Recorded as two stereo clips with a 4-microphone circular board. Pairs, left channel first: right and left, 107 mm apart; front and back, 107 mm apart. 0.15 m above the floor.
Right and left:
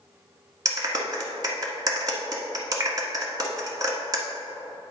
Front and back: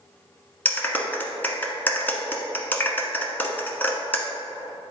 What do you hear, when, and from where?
0.7 s a clap: 65° left, 1.0 m